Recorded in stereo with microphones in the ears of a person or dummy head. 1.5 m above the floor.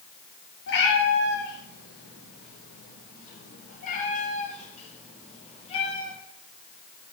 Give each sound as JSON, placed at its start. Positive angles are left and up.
{"t": 0.7, "sound": "a cat meowing", "side_deg": 70, "distance_m": 5.0}